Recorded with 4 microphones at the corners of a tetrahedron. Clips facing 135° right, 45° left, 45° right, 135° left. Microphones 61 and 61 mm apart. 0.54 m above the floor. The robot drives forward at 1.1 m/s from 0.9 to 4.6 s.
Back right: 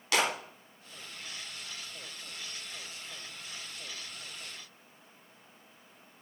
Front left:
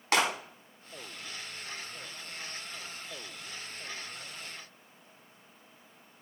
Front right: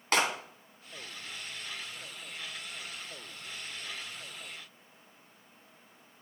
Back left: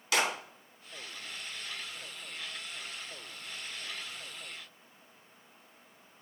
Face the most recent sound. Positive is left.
turn(degrees=-70)